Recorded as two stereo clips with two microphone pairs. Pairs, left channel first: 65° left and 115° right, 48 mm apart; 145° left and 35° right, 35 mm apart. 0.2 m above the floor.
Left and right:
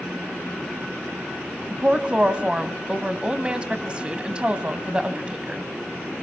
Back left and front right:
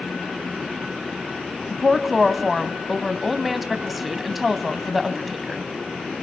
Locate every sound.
1.7 s a woman speaking: 120° right, 1.2 m